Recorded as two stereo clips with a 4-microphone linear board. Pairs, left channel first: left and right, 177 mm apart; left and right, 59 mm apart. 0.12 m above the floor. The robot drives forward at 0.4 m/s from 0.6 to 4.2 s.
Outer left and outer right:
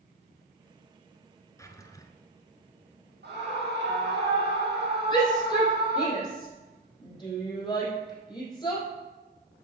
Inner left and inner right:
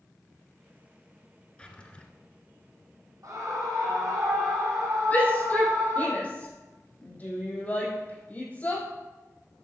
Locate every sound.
1.6 s a drawer: 20° left (ahead or behind), 1.1 m
3.2 s a scream: 75° right (ahead or behind), 4.5 m
5.1 s a shout: 25° left (ahead or behind), 4 m